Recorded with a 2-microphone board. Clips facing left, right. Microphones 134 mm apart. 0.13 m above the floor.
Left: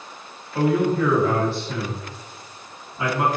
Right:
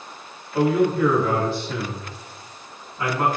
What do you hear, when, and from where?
0.5 s a man speaking: 10° right (ahead or behind), 1.6 m; by 3.3 s 15° left (ahead or behind), 1.5 m